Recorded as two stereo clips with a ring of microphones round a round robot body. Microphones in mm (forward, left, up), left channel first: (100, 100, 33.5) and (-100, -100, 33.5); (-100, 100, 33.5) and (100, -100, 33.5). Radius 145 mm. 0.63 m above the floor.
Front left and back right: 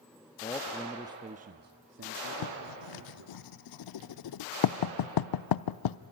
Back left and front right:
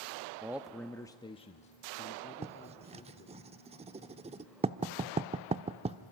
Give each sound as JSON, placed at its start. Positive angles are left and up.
{"t": 0.4, "sound": "a man speaking", "azimuth_deg": 25, "distance_m": 0.8}
{"t": 2.4, "sound": "writing", "azimuth_deg": 25, "distance_m": 0.6}